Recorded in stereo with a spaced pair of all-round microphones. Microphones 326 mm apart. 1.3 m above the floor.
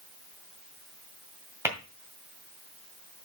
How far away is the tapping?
About 1.9 m.